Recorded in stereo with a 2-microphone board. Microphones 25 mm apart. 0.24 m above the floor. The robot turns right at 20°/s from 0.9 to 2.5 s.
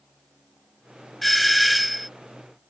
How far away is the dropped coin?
I don't hear a dropped coin.